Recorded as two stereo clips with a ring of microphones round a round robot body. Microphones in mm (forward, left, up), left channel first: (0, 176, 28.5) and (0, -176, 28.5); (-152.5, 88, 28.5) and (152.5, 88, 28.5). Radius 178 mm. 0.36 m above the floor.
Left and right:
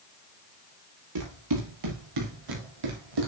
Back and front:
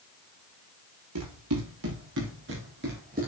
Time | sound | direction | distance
1.1 | running footsteps | 50° right | 5 m